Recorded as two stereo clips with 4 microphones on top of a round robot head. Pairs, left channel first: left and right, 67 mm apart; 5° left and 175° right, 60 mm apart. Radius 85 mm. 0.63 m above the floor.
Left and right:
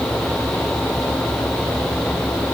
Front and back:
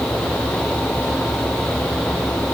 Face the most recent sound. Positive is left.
No sound to turn to.